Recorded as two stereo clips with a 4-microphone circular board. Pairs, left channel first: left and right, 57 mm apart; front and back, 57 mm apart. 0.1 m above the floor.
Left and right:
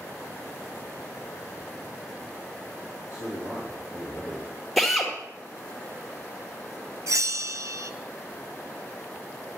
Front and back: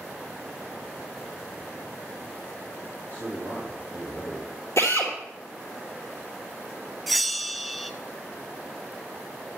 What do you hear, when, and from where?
3.1 s a man speaking: 45° right, 4 m
4.8 s a drill: straight ahead, 2 m
7.1 s a bell: 90° right, 0.5 m